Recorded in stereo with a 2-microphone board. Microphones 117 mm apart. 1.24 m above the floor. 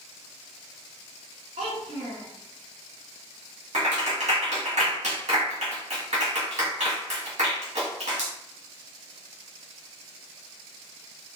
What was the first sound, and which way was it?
A child speaking, 70° right (ahead or behind).